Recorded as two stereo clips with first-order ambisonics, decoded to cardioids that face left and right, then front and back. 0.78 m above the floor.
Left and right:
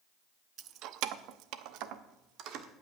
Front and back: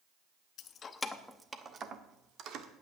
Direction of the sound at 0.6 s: 45° right.